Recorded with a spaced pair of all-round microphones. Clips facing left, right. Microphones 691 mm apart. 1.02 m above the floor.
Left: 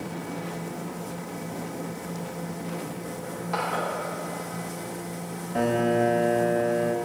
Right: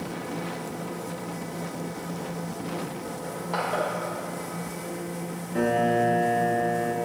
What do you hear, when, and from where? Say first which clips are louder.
3.2 s crushing: even; 40° left (ahead or behind), 1.9 m
5.5 s a piano: left 1 dB; 25° left (ahead or behind), 0.5 m